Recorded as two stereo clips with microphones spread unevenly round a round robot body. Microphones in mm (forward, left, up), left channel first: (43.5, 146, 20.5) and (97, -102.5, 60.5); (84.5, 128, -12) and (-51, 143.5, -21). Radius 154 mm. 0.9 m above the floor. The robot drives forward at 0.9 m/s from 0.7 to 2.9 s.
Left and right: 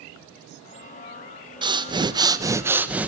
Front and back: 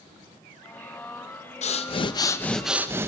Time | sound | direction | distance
1.6 | breathing | straight ahead | 1.2 m